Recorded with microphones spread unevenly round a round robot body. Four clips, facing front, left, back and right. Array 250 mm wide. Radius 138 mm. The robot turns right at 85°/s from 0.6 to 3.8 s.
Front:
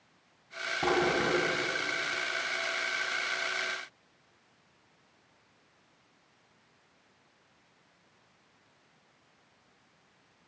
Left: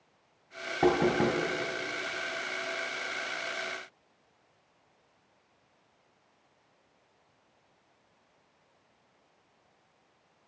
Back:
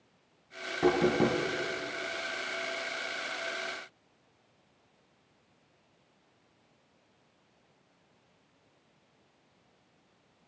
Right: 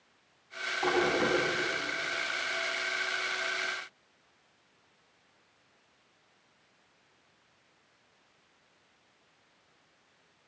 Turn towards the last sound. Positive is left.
turn(degrees=-5)